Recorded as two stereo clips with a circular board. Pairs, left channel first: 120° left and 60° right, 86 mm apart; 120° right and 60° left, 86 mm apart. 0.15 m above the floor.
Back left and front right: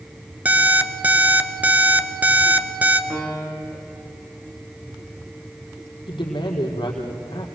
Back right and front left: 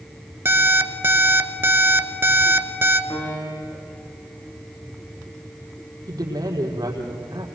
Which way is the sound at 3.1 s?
165° right.